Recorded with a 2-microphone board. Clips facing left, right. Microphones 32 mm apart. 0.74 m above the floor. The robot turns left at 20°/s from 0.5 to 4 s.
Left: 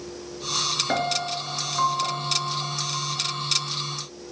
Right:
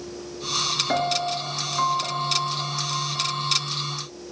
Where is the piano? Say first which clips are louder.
Right 2 dB; 15° left, 1.8 m; by 3.6 s 35° right, 1.8 m.